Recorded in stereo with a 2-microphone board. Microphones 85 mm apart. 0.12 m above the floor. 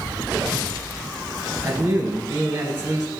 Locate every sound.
1.6 s a man speaking: 20° right (ahead or behind), 1.3 m